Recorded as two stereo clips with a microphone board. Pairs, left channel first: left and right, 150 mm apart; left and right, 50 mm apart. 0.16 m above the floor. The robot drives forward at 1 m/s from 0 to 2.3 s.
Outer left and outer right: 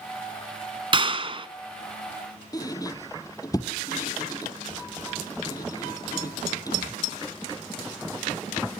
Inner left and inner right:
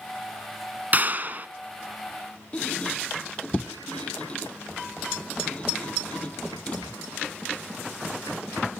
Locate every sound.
0.9 s a clap: 35° right (ahead or behind), 1.1 m
2.5 s a squeak: 25° left (ahead or behind), 0.9 m